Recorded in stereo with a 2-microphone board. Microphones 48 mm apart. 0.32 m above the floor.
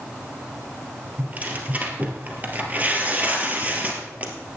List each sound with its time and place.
1.2 s tearing paper: 30° right (ahead or behind), 1.9 m